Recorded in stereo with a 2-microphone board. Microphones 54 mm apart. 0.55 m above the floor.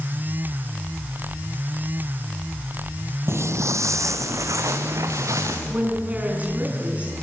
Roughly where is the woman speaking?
Right.